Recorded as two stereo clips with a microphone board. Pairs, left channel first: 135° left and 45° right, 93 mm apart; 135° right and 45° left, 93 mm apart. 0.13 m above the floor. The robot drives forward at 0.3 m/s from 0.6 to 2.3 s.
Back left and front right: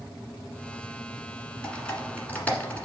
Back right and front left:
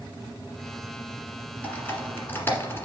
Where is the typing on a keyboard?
165° right, 1.3 m; by 2.9 s 170° right, 1.4 m.